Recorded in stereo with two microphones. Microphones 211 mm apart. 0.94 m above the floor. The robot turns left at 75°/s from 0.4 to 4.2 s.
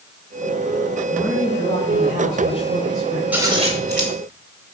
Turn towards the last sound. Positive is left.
turn(degrees=-75)